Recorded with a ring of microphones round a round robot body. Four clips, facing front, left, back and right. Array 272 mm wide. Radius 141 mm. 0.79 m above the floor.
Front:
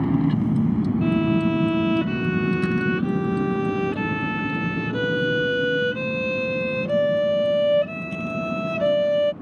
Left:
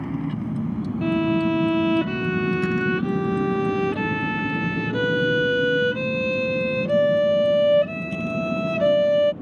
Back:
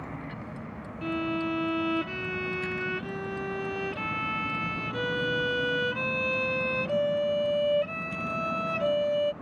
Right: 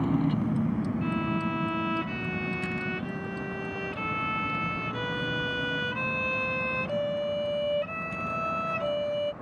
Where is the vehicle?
10° right; by 9.4 s 65° left.